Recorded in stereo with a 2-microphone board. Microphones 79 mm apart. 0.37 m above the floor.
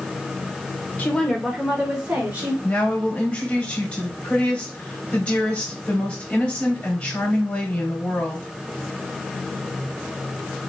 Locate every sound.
1.0 s a woman speaking: 25° left (ahead or behind), 0.8 m; by 2.5 s 40° right (ahead or behind), 1.5 m
2.6 s a woman speaking: 15° left (ahead or behind), 2 m